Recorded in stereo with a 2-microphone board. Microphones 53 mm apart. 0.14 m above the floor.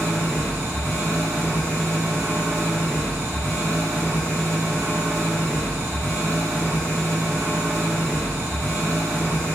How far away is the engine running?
About 1.5 m.